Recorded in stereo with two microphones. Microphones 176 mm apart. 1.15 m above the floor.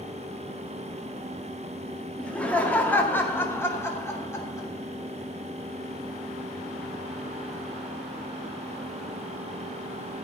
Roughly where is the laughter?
Centre.